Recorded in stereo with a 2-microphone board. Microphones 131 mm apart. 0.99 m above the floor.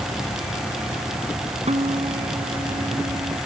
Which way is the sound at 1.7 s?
60° right (ahead or behind).